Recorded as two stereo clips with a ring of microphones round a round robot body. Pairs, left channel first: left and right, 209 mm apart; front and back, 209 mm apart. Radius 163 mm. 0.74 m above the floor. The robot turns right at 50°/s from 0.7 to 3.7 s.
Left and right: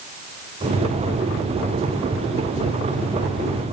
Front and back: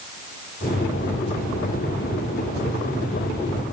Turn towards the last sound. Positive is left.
No sound to turn to.